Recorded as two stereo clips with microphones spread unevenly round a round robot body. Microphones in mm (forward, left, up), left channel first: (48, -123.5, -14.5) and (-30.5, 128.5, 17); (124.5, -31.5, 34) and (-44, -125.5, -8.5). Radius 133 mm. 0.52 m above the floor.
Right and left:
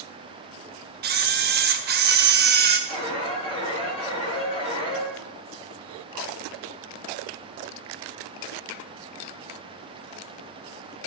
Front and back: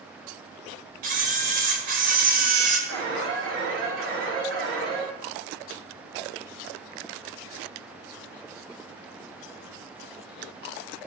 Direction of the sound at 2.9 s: 145° right.